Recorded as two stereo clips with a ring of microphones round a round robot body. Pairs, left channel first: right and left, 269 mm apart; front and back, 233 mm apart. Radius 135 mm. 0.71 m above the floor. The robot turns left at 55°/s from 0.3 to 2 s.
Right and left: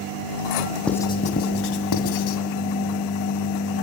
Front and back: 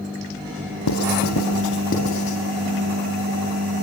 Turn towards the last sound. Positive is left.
turn(degrees=-65)